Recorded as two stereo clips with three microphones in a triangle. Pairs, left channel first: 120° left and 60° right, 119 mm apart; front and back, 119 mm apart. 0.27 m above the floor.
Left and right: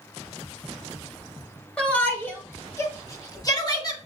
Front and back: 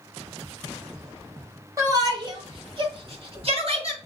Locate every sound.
1.8 s a shout: 165° right, 1.1 m; by 4.0 s 170° left, 2 m